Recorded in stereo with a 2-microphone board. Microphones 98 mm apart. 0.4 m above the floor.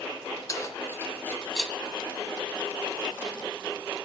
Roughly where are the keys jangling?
Left.